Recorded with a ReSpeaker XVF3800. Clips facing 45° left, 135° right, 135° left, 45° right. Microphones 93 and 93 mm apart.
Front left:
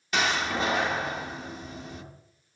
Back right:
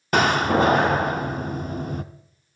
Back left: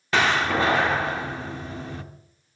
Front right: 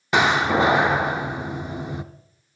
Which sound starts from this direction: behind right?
A door slam, at 0.1 s.